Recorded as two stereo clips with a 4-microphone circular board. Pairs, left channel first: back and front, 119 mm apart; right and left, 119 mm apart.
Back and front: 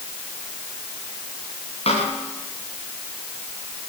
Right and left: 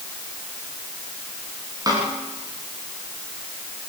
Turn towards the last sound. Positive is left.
turn(degrees=150)